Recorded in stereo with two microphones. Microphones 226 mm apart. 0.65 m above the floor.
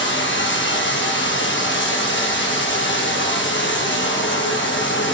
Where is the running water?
60° left (ahead or behind), 0.7 m.